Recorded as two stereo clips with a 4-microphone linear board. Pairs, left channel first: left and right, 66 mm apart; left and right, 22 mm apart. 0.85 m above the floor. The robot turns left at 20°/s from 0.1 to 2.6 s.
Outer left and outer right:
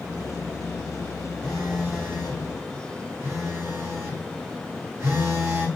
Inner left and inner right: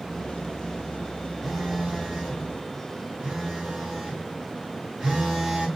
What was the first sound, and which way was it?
A phone buzzing, 15° right (ahead or behind).